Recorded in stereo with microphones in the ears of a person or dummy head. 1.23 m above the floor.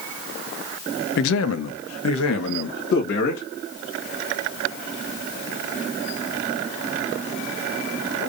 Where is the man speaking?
60° left (ahead or behind), 0.7 m; by 3.4 s 55° left (ahead or behind), 1.7 m.